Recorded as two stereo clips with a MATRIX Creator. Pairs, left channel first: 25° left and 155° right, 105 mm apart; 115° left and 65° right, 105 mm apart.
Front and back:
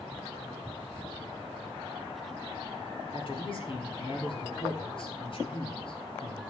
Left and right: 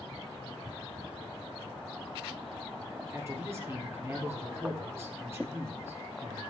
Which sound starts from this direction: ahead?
A man speaking, at 3.1 s.